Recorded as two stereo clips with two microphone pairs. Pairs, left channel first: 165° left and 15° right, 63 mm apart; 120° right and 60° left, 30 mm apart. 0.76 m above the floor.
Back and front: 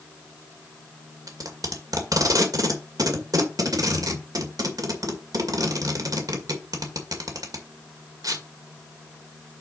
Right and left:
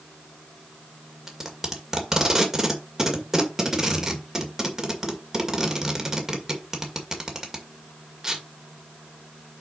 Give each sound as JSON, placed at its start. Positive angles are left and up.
{"t": 1.3, "sound": "tape being pulled", "azimuth_deg": -10, "distance_m": 1.8}